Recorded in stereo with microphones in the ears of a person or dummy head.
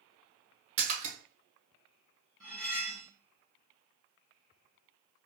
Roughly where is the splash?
Right.